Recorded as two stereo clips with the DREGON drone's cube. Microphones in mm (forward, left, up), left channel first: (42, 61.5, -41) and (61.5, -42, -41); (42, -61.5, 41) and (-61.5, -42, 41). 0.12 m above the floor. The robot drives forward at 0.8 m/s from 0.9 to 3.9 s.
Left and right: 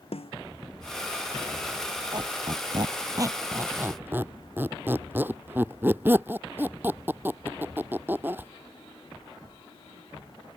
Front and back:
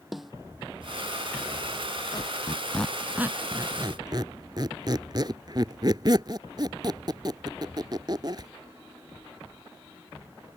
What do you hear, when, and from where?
0.1 s a snare drum: 80° left
2.1 s a squeak: 45° right; by 8.5 s 145° right